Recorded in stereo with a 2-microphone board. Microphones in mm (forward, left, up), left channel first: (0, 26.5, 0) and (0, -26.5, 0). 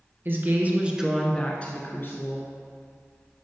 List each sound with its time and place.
0.2 s a woman speaking: 45° right (ahead or behind), 1.9 m; by 2.5 s 55° left (ahead or behind), 2 m